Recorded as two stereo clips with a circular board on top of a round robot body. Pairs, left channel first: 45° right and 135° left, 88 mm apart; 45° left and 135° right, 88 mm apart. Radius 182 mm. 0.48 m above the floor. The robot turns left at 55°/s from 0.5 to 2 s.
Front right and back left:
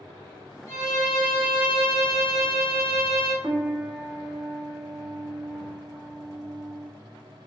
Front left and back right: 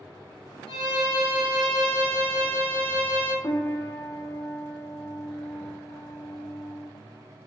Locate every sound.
0.7 s a violin: 15° left, 1.1 m; by 3.3 s 60° right, 1.1 m
3.4 s a piano: 60° left, 0.6 m